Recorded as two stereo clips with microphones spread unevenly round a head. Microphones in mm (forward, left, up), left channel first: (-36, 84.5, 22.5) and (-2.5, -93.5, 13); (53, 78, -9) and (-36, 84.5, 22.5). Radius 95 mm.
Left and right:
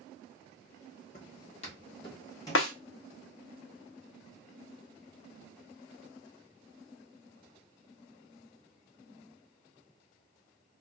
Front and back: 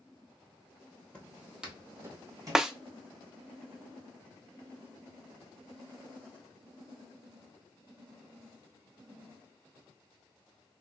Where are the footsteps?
85° left, 1.6 m; by 2.7 s 170° left, 2.5 m.